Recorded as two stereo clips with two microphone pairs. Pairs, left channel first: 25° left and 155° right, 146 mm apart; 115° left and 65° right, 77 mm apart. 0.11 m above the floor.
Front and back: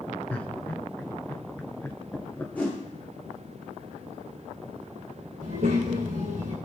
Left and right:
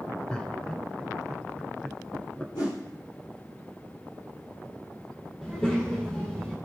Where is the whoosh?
105° left, 5 m.